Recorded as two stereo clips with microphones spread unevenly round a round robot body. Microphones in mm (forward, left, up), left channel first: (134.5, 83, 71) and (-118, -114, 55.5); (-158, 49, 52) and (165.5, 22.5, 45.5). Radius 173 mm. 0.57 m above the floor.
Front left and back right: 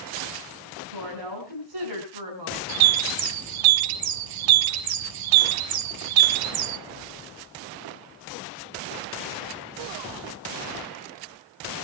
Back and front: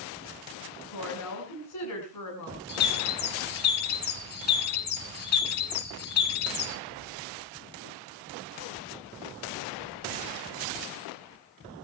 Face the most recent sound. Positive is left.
turn(degrees=-125)